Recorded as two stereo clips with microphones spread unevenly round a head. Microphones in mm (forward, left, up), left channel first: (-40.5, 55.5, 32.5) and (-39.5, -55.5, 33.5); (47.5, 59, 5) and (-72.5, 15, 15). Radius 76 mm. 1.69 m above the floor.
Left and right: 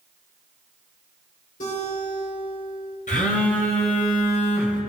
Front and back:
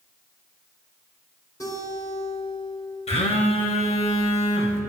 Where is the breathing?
I don't hear breathing.